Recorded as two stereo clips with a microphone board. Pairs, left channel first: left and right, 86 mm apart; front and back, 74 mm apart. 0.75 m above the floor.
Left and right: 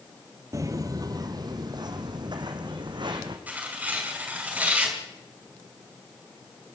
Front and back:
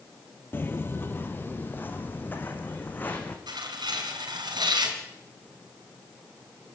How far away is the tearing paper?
About 5 m.